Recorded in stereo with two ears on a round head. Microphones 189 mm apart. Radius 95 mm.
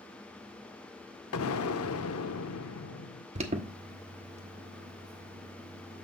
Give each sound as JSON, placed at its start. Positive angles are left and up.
{"t": 1.3, "sound": "an explosion", "side_deg": 70, "distance_m": 0.7}
{"t": 3.4, "sound": "an alarm", "side_deg": -30, "distance_m": 1.1}